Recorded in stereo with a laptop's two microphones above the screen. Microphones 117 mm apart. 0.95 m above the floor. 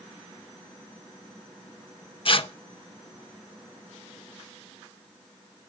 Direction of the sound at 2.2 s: 50° left (ahead or behind).